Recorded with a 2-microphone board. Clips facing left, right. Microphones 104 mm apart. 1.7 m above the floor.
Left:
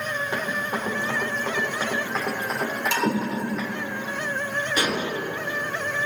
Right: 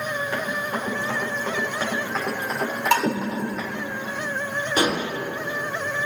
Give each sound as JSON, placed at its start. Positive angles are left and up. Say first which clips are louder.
{"t": 0.3, "sound": "running footsteps", "louder": "right 1 dB", "side_deg": 25, "distance_m": 4.5}
{"t": 2.9, "sound": "dishes clattering", "louder": "right 6 dB", "side_deg": -60, "distance_m": 1.6}
{"t": 4.8, "sound": "dishes clattering", "louder": "right 4 dB", "side_deg": -40, "distance_m": 3.0}